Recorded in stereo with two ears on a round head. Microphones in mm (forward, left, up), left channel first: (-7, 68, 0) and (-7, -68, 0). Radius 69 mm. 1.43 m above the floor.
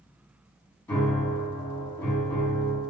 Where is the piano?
10° left (ahead or behind), 2.5 m.